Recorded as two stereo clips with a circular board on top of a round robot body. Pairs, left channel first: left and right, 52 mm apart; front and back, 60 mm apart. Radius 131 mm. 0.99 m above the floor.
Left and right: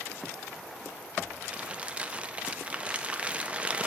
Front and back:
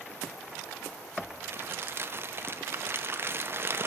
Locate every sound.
1.4 s crumpling: 150° right, 0.8 m